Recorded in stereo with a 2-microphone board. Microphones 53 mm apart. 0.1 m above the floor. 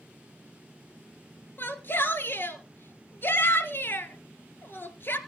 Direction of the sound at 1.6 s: 40° left (ahead or behind).